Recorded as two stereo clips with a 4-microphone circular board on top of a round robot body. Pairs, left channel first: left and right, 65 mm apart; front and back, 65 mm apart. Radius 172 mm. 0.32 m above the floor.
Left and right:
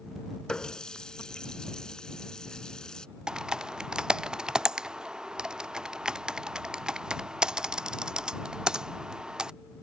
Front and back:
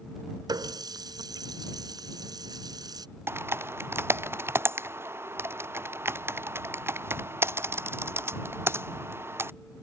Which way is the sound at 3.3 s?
165° right.